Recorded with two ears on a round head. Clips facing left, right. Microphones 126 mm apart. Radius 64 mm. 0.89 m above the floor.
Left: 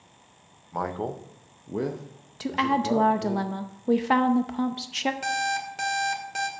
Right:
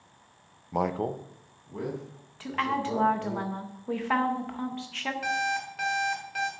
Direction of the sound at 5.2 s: 45° left (ahead or behind).